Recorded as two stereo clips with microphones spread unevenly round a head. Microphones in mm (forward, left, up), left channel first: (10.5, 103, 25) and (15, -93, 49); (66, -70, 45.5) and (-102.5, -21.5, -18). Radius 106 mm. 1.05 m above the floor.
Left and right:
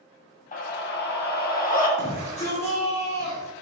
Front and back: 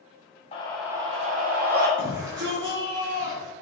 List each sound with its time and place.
0.5 s a scream: 50° left, 0.8 m; by 1.9 s 135° left, 2.0 m
2.0 s a shout: 150° left, 2 m